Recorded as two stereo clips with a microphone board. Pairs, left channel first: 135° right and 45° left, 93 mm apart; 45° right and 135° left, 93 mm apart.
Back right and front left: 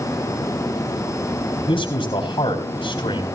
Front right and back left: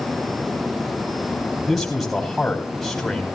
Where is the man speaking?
125° right, 3.5 m.